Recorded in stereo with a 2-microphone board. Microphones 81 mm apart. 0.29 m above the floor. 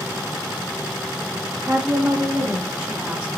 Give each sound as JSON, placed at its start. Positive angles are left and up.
{"t": 1.6, "sound": "a woman speaking", "side_deg": -20, "distance_m": 1.2}